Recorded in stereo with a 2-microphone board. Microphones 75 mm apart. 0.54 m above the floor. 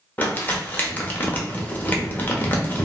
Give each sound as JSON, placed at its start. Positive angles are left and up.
{"t": 0.2, "sound": "crumpling", "side_deg": 25, "distance_m": 0.7}